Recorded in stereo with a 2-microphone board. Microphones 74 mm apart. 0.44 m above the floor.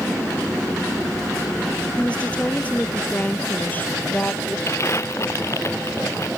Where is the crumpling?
40° left (ahead or behind).